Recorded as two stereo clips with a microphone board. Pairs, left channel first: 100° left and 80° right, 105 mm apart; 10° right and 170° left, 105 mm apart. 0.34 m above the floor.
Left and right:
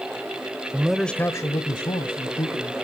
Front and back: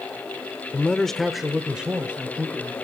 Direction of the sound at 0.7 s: 65° right.